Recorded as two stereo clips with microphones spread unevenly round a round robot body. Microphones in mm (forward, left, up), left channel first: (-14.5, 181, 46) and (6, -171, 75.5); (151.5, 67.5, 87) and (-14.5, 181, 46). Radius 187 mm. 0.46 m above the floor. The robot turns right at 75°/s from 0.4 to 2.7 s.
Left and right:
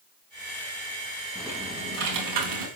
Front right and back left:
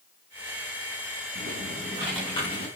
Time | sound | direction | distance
1.4 | typing on a keyboard | 175° left | 4.5 m